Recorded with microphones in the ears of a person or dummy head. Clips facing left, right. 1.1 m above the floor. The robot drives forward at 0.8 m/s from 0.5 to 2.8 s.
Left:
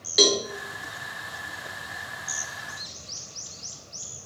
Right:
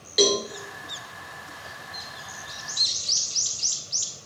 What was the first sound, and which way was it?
A cowbell, 5° left (ahead or behind).